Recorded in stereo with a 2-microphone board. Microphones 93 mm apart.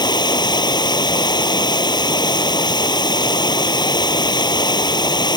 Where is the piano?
No piano in this recording.